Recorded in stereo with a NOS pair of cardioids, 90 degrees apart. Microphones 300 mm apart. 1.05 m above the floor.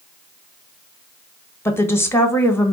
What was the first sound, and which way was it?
A woman speaking, 10° left.